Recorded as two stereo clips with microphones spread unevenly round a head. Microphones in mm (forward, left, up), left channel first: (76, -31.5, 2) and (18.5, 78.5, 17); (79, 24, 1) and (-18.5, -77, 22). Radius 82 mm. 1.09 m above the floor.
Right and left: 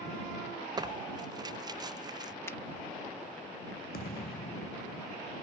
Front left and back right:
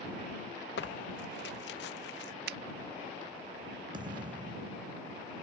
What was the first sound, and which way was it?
Tearing paper, 60° left.